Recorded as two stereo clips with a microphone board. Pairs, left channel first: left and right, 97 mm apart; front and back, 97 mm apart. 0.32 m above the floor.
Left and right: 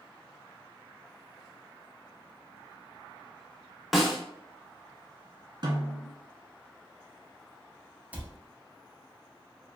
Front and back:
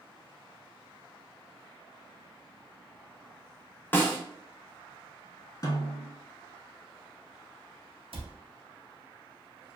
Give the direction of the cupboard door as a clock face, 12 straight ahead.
6 o'clock.